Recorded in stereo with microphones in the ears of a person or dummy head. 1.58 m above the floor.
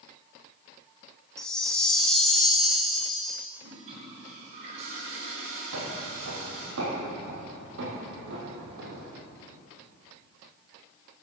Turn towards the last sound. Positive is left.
turn(degrees=-45)  # may be behind; listen again after turning